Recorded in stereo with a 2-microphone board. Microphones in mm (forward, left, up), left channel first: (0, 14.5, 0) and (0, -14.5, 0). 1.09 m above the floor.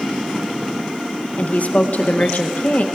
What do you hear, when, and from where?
1.4 s a woman speaking: 55° left (ahead or behind), 0.6 m